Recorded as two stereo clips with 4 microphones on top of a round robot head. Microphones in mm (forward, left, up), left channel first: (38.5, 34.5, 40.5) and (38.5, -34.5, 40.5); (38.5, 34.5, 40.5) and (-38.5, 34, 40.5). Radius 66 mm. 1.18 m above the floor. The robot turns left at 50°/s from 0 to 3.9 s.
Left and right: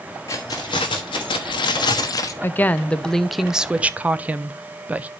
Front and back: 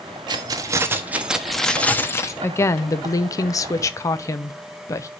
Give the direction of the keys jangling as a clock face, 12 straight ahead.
7 o'clock.